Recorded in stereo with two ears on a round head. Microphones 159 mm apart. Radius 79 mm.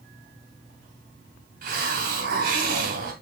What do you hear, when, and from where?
1.6 s a hiss: 55° right (ahead or behind), 2.5 m